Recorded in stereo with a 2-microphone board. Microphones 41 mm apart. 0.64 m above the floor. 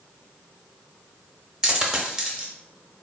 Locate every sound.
1.6 s a dropped coin: 20° right (ahead or behind), 0.7 m